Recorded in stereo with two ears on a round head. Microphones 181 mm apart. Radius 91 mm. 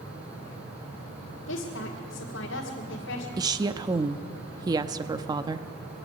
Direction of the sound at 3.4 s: 20° right (ahead or behind).